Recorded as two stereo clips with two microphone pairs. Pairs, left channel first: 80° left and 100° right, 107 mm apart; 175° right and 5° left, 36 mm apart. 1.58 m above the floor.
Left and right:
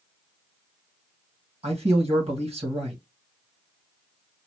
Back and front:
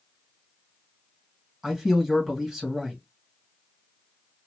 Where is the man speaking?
75° right, 1.9 m.